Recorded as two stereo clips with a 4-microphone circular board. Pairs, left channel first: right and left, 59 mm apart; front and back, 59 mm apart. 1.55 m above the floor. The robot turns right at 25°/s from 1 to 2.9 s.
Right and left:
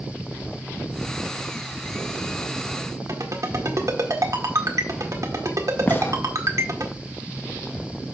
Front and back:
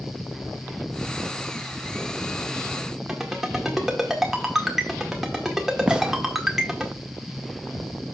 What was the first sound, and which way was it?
A ringtone, 95° left.